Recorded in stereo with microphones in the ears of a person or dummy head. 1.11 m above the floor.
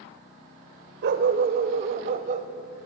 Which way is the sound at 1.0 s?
55° right (ahead or behind).